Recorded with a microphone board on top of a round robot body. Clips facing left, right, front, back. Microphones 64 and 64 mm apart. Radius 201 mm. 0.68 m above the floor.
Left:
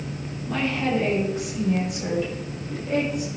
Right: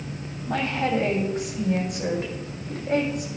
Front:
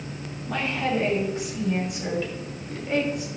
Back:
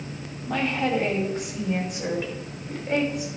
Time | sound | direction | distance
0.5 | a woman speaking | 140° right | 6 m